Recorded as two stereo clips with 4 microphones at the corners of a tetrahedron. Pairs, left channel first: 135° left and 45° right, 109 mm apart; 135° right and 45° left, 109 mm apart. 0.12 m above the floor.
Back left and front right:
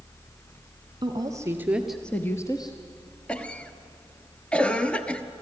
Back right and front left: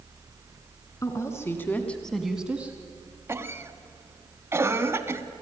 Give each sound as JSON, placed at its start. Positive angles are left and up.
{"t": 1.0, "sound": "a woman speaking", "azimuth_deg": -80, "distance_m": 1.8}
{"t": 3.3, "sound": "a cough", "azimuth_deg": 70, "distance_m": 1.1}